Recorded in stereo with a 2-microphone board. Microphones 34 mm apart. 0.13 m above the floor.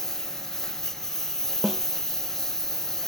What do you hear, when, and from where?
0.0 s a lawn mower: 10° left (ahead or behind)
1.6 s a snare drum: 5° right (ahead or behind)